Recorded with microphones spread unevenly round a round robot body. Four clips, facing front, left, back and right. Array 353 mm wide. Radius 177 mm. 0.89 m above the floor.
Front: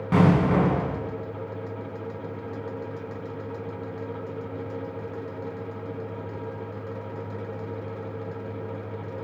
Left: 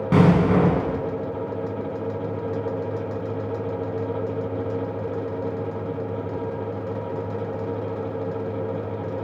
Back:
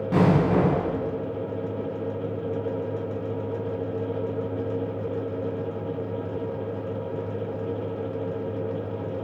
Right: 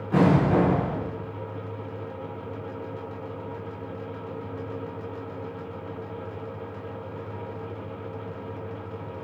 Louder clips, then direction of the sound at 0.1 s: Left 2 dB, even; 60° left.